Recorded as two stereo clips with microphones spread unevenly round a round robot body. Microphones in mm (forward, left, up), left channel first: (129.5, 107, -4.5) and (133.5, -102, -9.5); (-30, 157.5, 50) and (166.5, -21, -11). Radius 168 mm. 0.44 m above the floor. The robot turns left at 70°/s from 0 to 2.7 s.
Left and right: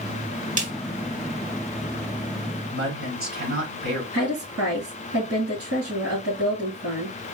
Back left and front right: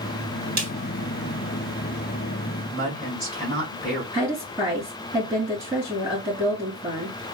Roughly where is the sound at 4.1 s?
Behind right.